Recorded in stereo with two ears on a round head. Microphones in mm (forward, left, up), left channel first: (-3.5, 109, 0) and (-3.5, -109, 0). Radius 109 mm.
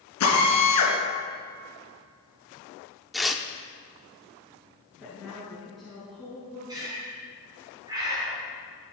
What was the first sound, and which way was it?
A drill, 75° left (ahead or behind).